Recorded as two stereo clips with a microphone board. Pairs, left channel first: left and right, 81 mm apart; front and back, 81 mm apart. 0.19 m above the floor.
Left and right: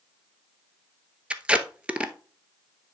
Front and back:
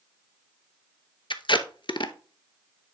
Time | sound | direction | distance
1.3 | tape being pulled | 15° right | 0.8 m